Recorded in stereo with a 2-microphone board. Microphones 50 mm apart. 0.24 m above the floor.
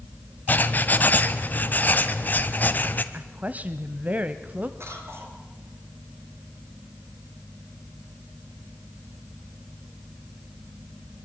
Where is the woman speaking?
30° right (ahead or behind), 1.0 m.